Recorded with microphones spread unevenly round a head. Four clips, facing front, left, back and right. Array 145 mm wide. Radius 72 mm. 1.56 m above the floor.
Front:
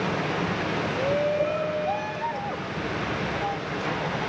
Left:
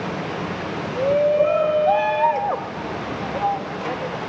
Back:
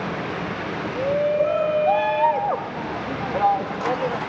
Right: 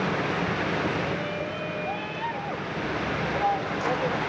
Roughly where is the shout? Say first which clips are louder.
Left 13 dB, back 5 dB; left.